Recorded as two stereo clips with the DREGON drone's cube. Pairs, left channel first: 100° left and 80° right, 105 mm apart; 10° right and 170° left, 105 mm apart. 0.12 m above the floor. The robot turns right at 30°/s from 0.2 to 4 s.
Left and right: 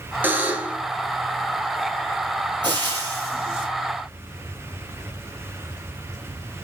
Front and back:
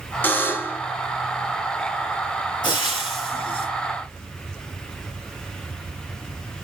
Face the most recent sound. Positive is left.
turn(degrees=-5)